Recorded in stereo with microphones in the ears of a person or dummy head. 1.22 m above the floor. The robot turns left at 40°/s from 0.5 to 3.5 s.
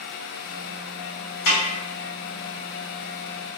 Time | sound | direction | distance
1.5 | a snare drum | 65° left (ahead or behind) | 1.0 m